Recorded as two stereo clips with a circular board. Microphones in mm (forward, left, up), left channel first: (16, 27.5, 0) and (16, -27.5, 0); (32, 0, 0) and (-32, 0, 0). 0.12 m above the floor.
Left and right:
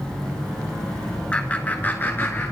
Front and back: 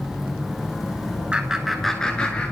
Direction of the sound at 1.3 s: 130° left.